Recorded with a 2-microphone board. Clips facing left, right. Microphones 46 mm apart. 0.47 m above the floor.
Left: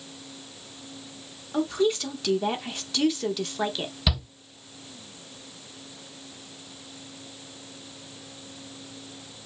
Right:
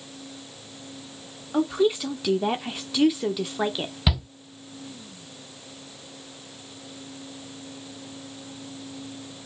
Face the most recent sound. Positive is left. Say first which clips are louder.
# right 2 dB
turn(degrees=-20)  # may be behind; listen again after turning